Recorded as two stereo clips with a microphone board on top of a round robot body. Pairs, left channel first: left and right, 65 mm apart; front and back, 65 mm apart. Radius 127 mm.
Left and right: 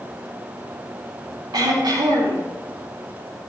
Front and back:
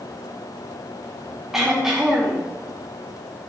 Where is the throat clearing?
95° right, 7 m.